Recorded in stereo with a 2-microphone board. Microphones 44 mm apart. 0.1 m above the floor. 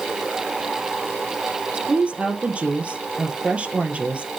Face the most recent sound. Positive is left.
turn(degrees=-30)  # may be behind; listen again after turning